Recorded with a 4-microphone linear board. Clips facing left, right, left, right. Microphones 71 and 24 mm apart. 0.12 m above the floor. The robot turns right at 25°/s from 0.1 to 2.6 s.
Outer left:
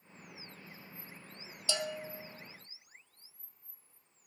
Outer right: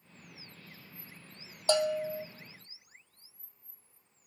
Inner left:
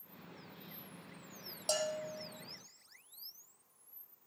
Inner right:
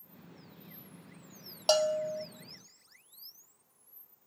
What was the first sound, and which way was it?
A bell, 50° right (ahead or behind).